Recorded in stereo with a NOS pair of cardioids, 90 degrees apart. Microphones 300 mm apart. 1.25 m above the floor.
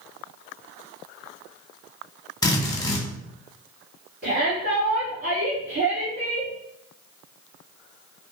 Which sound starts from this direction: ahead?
A drill, at 2.4 s.